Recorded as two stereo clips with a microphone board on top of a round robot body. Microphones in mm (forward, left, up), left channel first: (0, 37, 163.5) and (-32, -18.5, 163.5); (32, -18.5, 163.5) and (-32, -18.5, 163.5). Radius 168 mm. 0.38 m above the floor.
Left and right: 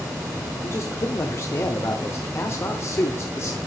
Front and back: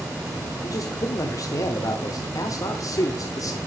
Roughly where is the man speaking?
Ahead.